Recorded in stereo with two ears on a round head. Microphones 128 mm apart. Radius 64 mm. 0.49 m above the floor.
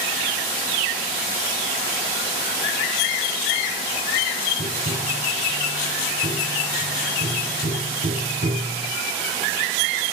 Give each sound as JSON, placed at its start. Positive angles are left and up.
{"t": 4.6, "sound": "tapping", "side_deg": -75, "distance_m": 4.0}